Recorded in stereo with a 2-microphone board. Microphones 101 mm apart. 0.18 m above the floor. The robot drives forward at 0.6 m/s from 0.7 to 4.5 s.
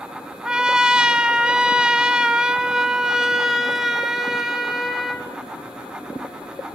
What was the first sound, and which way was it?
A trumpet, 5° right (ahead or behind).